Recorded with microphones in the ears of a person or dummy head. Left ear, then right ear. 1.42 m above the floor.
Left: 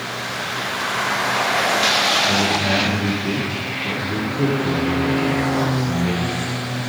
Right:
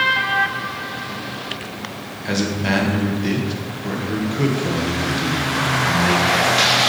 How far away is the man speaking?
About 1.1 m.